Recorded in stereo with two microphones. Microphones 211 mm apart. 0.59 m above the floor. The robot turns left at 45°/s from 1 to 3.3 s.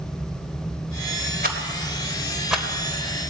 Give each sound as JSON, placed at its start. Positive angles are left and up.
{"t": 1.4, "sound": "a rattle", "side_deg": -45, "distance_m": 2.5}